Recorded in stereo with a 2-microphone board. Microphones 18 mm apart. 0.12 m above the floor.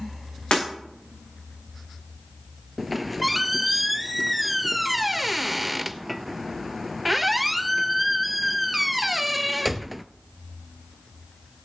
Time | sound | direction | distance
0.5 | breaking glass | 80° left | 8 m
2.8 | a squeak | 10° right (ahead or behind) | 0.5 m